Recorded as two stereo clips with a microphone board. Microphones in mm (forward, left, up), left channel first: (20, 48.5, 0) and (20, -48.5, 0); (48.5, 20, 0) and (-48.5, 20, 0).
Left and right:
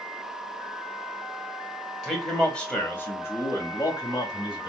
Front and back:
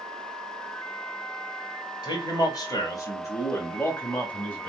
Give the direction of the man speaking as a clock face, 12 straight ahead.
12 o'clock.